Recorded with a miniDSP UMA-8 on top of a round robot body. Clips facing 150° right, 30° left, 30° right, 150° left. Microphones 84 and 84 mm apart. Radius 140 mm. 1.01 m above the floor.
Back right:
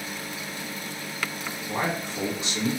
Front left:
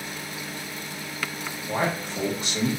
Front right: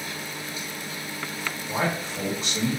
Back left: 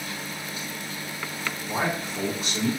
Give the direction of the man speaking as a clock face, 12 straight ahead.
10 o'clock.